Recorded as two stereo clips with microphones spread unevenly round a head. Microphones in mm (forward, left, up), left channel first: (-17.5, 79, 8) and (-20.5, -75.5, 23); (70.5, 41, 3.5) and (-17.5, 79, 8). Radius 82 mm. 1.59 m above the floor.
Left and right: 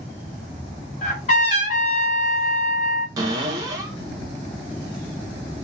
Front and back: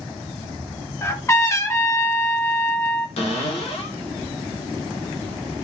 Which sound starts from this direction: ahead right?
A cupboard door, at 3.2 s.